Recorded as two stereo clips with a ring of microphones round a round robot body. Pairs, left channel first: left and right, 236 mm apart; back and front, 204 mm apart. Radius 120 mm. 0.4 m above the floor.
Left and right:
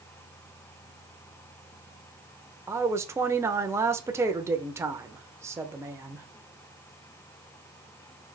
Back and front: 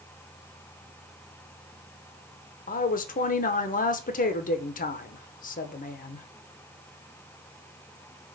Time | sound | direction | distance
2.7 | a woman speaking | 165° right | 0.9 m